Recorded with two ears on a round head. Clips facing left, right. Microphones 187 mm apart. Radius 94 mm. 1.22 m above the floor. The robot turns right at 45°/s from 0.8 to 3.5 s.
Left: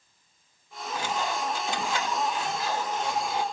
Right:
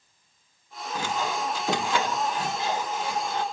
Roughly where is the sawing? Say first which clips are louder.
Right 1 dB; right.